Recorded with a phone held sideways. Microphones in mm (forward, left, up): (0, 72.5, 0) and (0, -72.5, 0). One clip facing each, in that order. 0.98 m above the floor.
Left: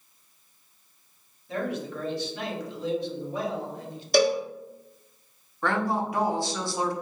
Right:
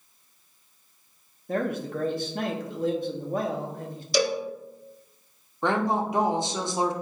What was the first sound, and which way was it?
A man speaking, 45° right (ahead or behind).